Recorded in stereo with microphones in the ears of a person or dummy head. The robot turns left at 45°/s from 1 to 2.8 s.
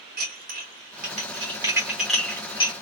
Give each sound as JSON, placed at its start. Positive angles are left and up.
{"t": 0.2, "sound": "dishes clattering", "side_deg": -50, "distance_m": 1.0}